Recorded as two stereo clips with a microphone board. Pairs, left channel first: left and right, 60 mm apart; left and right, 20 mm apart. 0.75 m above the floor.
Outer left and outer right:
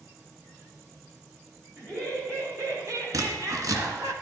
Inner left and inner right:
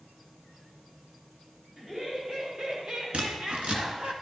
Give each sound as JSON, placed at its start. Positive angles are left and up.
{"t": 1.8, "sound": "laughter", "side_deg": -55, "distance_m": 4.5}
{"t": 3.1, "sound": "scissors", "side_deg": -75, "distance_m": 1.7}